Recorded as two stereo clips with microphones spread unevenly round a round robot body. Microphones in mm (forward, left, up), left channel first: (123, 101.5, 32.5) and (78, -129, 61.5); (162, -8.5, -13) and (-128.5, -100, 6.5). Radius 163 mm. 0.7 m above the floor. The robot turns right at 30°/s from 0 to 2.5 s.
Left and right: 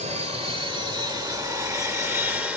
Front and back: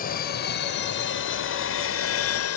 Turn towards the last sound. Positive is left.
turn(degrees=-20)